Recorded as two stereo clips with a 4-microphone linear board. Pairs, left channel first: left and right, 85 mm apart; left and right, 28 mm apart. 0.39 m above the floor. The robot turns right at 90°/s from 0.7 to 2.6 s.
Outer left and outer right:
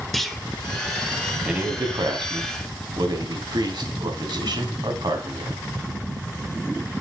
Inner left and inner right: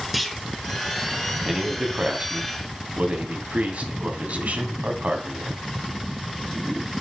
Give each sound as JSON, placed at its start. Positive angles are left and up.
{"t": 0.1, "sound": "a clunk", "side_deg": 0, "distance_m": 1.1}
{"t": 1.4, "sound": "a man speaking", "azimuth_deg": -170, "distance_m": 2.5}